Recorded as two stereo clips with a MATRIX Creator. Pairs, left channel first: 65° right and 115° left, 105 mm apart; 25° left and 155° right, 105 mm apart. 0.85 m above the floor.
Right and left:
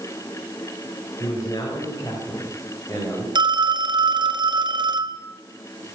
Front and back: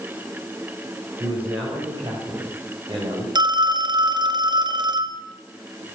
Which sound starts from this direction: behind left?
A phone ringing, at 3.4 s.